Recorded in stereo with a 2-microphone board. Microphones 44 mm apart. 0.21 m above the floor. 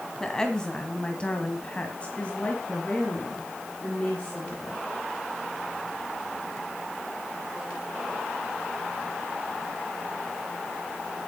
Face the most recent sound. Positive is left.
turn(degrees=25)  # may be behind; listen again after turning